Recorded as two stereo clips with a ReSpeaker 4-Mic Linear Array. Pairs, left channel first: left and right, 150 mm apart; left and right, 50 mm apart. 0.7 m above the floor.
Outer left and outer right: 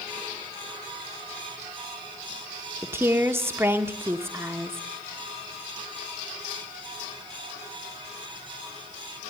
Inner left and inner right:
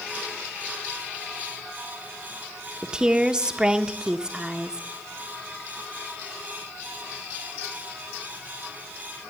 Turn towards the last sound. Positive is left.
turn(degrees=-15)  # may be behind; listen again after turning